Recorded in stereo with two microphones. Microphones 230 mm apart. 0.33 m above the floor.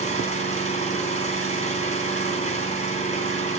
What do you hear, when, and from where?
0.0 s an engine running: 30° left (ahead or behind), 2.5 m